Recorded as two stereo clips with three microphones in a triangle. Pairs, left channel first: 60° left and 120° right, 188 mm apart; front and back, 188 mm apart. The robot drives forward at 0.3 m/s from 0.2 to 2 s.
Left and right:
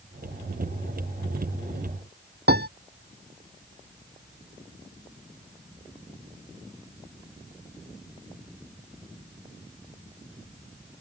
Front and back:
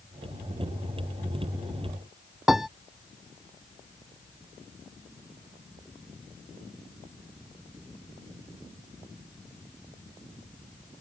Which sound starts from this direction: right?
A piano, at 2.5 s.